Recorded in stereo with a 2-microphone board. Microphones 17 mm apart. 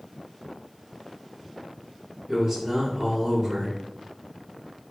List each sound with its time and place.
2.3 s a man speaking: 35° right (ahead or behind), 1.7 m